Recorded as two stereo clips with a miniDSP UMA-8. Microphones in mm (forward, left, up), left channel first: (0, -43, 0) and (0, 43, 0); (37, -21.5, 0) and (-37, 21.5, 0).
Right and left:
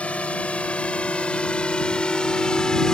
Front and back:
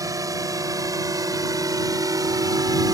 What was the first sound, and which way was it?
A drone, 165° right.